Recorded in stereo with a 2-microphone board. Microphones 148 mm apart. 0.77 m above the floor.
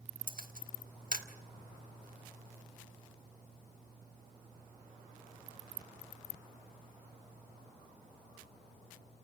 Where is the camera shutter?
70° right (ahead or behind), 1.6 m.